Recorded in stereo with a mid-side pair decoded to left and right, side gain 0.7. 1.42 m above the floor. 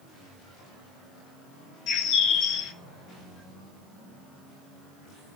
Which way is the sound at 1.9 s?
50° left.